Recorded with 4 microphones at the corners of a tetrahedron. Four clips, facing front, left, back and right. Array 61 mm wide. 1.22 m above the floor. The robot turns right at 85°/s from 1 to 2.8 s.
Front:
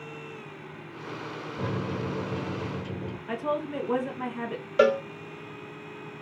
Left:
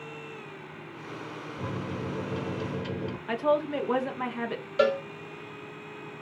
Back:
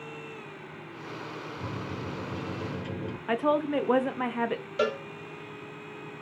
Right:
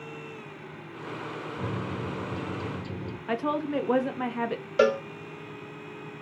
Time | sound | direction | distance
1.6 | a microwave | 5° right | 0.8 m
3.3 | a woman speaking | straight behind | 0.6 m
4.8 | a cowbell | 30° right | 0.5 m